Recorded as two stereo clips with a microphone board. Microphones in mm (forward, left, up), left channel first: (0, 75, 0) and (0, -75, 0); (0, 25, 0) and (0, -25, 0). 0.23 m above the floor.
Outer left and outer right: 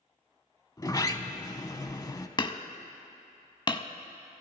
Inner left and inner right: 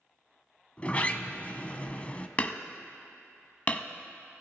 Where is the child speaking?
I don't hear a child speaking.